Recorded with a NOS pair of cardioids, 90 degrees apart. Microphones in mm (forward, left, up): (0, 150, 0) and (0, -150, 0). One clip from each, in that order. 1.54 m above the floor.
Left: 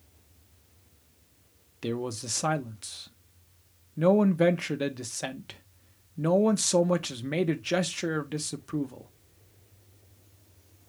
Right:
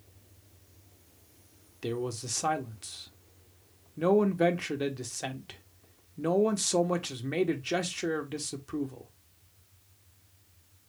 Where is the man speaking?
15° left, 0.9 m.